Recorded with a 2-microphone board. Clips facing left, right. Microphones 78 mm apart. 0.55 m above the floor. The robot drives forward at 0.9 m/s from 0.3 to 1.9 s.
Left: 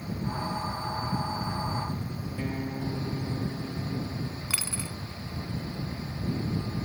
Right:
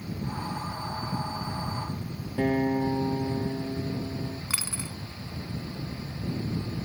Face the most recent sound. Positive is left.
turn(degrees=-15)  # may be behind; listen again after turning